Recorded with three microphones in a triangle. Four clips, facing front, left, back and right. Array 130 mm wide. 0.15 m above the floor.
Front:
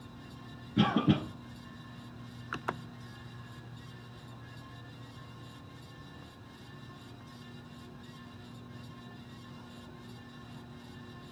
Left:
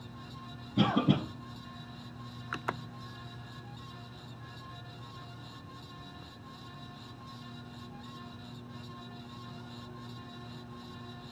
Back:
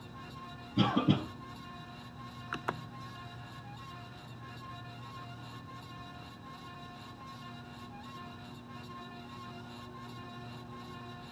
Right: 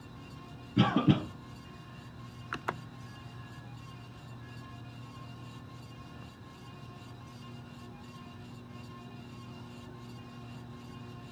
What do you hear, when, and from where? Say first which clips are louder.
0.8 s a cough: right 1 dB, front 1 dB; 55° right, 2 m